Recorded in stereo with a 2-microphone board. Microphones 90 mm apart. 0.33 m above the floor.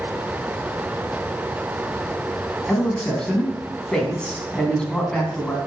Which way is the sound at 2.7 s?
10° left (ahead or behind).